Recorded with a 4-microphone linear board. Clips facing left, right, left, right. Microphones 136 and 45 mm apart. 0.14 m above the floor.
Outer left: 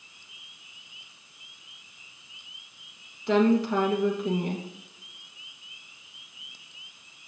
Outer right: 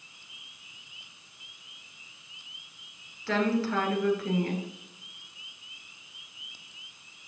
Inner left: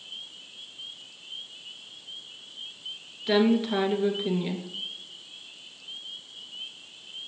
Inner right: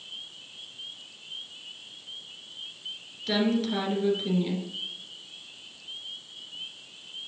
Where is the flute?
I don't hear a flute.